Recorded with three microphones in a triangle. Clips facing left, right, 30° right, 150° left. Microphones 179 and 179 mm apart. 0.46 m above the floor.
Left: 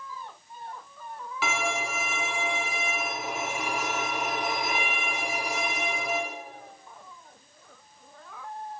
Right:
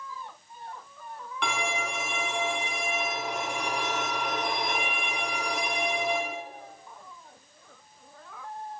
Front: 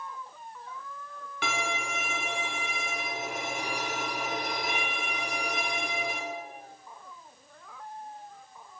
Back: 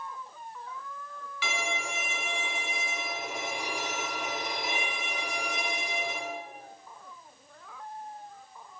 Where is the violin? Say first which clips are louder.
Left 1 dB, front 2 dB; 5° left, 3.5 m.